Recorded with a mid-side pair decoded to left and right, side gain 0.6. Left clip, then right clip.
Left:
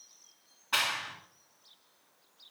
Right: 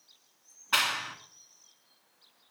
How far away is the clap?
About 1.9 m.